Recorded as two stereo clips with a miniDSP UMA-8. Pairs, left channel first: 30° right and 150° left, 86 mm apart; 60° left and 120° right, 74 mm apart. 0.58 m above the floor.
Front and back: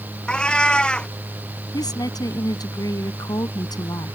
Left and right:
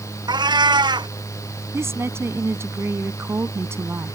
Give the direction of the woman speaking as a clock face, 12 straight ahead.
2 o'clock.